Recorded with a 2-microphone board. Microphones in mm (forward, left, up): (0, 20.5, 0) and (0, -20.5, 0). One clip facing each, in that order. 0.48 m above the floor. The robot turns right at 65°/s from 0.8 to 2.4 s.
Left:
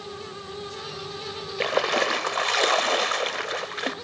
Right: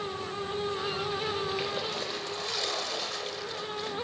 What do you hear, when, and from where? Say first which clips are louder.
1.6 s a splash: left 10 dB; 60° left, 0.7 m; by 3.9 s 115° left, 0.7 m